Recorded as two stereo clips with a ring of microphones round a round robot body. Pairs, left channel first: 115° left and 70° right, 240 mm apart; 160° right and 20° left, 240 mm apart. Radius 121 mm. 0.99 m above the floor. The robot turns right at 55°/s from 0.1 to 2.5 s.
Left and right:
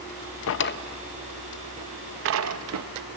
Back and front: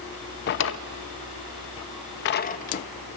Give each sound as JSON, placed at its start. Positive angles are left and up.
{"t": 0.5, "sound": "a drawer", "azimuth_deg": 150, "distance_m": 0.5}